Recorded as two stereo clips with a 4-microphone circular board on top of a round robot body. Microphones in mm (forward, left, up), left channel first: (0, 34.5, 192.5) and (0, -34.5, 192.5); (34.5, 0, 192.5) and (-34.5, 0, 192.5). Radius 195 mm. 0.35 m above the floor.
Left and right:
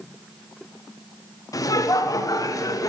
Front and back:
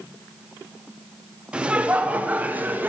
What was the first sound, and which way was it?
Laughter, 110° left.